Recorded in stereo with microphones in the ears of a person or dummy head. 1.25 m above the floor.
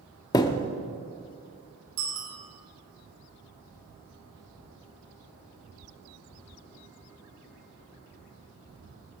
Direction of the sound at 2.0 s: 80° right.